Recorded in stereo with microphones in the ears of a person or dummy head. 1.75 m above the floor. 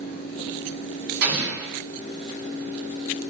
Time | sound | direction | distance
1.2 | an explosion | 60° right (ahead or behind) | 1.3 m